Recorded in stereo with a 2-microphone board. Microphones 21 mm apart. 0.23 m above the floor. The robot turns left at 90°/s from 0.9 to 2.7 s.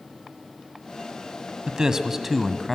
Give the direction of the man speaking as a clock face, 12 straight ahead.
3 o'clock.